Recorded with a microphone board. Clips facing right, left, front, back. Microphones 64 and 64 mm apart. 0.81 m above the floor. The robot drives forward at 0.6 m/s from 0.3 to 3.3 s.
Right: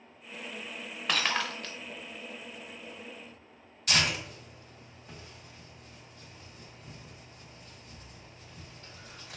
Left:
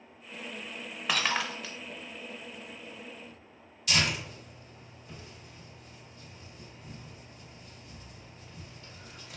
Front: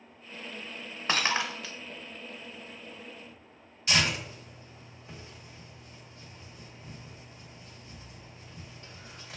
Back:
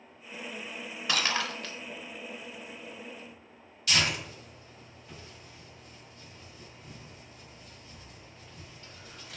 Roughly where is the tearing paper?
Ahead right.